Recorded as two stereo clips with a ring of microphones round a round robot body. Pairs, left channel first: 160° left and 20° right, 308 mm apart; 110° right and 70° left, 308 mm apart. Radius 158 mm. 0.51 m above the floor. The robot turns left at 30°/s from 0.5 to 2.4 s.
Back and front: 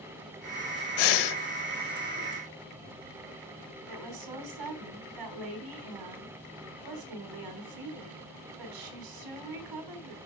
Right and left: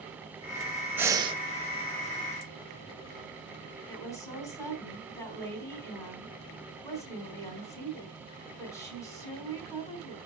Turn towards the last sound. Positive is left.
turn(degrees=-30)